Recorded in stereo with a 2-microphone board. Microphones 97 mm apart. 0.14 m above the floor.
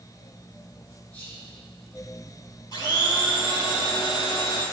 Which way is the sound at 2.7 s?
45° left (ahead or behind).